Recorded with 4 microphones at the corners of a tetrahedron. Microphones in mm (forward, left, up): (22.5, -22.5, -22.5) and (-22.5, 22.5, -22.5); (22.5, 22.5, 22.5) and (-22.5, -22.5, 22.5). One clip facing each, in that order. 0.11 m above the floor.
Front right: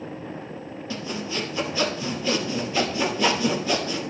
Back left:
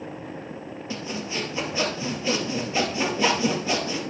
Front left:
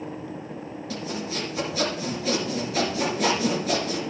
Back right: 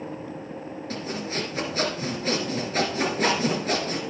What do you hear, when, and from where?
0.9 s sawing: 165° right, 2.5 m